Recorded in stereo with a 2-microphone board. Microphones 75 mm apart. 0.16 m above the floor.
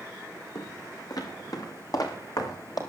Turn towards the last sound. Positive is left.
turn(degrees=50)  # may be behind; listen again after turning